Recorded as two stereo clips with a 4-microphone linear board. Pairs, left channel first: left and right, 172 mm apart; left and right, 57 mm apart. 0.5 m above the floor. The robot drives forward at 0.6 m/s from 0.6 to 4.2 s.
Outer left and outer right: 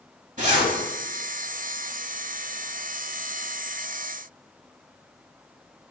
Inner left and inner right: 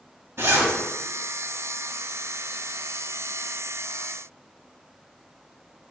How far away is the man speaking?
No man speaking in this recording.